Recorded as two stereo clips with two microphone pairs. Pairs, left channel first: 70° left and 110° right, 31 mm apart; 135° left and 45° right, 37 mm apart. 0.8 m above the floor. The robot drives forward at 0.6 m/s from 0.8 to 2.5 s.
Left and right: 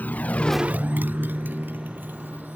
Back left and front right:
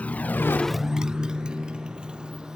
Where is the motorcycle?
85° left; by 2.5 s 110° right.